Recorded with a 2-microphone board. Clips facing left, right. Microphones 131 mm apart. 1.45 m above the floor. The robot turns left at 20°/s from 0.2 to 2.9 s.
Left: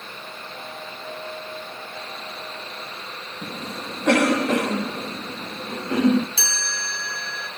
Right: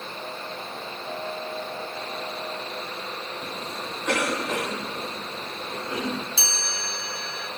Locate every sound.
3.4 s a cough: 80° left, 2 m
6.4 s a chime: 85° left, 5.5 m